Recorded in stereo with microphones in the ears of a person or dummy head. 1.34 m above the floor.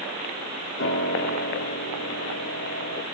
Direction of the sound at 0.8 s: 80° left.